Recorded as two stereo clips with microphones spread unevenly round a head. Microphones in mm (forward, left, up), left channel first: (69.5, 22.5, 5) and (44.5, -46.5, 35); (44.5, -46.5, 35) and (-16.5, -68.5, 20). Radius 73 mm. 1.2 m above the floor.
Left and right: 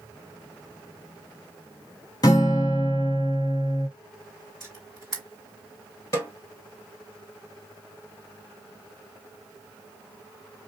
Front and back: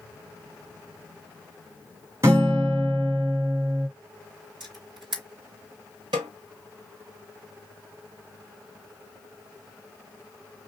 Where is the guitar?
140° left, 0.5 m.